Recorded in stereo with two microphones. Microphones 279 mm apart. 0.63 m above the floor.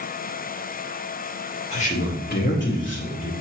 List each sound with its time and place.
1.7 s a man speaking: 25° left (ahead or behind), 1.4 m; by 3.3 s 50° left (ahead or behind), 2 m